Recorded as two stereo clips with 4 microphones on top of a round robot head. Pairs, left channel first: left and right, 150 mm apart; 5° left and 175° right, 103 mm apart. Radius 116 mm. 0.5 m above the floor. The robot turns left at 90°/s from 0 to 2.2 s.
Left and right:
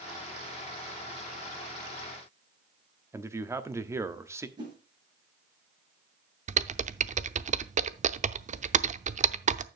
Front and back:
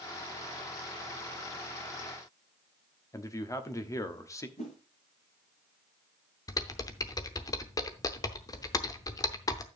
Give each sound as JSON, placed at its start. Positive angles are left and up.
{"t": 3.1, "sound": "a man speaking", "azimuth_deg": -30, "distance_m": 1.2}
{"t": 4.6, "sound": "a whoosh", "azimuth_deg": -30, "distance_m": 6.0}
{"t": 6.5, "sound": "typing on a keyboard", "azimuth_deg": -55, "distance_m": 0.7}